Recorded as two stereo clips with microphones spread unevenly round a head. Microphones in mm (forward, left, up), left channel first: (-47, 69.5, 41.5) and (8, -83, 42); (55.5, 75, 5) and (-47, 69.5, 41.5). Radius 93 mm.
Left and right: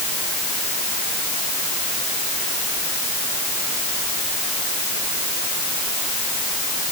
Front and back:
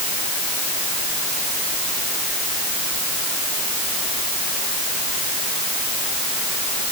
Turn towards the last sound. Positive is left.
No sound to turn to.